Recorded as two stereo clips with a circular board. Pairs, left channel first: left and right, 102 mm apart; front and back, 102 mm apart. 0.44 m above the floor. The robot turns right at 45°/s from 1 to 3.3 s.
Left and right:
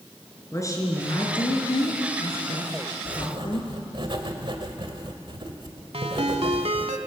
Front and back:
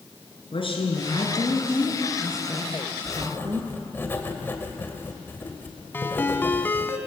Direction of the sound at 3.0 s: 75° right.